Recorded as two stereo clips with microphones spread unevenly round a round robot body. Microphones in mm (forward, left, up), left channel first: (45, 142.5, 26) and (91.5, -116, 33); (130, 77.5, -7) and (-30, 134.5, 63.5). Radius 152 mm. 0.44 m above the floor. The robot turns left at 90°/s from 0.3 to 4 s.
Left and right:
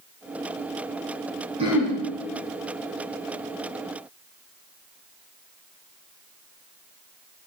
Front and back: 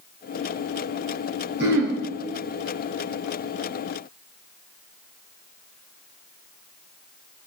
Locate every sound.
1.6 s throat clearing: 150° right, 3.5 m; by 2.0 s 175° left, 3.5 m